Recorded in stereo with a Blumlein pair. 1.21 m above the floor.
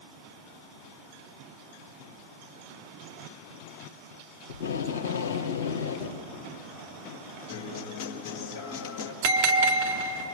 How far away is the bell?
About 2 m.